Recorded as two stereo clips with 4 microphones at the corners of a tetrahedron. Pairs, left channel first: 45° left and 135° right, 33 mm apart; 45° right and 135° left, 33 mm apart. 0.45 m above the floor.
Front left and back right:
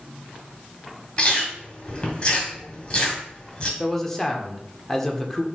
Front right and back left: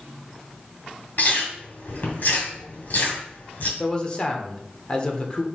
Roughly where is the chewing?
Ahead.